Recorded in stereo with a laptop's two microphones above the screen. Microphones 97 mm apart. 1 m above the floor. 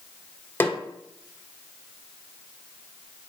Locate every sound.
0.6 s a snare drum: 20° left (ahead or behind), 0.9 m